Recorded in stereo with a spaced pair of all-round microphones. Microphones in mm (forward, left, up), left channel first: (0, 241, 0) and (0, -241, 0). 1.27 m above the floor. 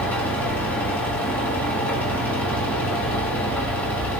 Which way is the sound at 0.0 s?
5° left (ahead or behind).